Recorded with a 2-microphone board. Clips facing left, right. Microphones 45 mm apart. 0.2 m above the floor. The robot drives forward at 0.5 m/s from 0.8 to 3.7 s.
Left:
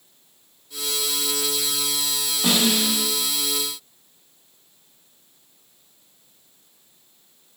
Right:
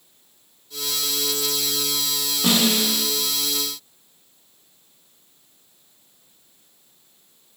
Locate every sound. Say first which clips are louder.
2.4 s a snare drum: right 1 dB; 15° left (ahead or behind), 1.5 m